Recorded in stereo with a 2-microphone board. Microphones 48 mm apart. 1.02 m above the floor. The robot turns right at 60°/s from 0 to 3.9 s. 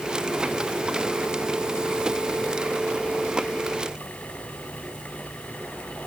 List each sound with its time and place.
Only background noise.